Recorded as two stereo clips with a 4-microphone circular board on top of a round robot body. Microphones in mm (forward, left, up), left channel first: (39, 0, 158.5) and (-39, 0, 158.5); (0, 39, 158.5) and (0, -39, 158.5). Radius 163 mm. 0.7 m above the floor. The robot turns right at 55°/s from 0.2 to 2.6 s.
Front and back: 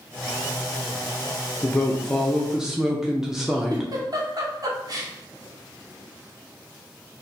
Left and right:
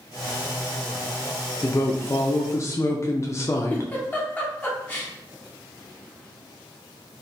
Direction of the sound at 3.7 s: 155° left.